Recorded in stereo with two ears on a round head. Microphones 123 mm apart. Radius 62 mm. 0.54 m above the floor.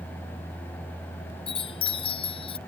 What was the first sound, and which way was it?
A chime, 40° left (ahead or behind).